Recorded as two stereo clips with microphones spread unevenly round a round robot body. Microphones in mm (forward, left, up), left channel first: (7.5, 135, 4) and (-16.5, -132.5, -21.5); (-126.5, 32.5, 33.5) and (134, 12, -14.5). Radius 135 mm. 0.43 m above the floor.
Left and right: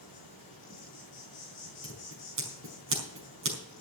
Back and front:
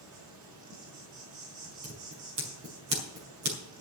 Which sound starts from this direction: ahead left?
An insect, at 0.0 s.